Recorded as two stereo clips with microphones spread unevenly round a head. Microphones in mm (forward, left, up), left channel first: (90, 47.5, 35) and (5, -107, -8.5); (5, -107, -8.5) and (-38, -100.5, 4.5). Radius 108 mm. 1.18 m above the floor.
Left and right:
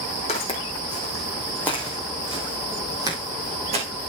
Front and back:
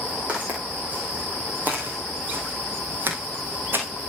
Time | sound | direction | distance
0.3 | footsteps | 115° left | 3 m